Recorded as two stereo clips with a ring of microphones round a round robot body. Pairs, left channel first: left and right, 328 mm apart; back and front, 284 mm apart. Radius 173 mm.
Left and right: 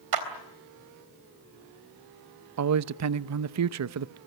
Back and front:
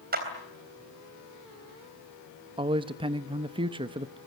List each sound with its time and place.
0.1 s a clap: 65° right, 3.5 m
2.6 s a man speaking: 70° right, 0.7 m